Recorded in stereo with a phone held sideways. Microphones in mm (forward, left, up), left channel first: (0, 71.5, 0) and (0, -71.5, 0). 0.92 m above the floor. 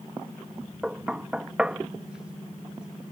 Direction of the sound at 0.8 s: 5° right (ahead or behind).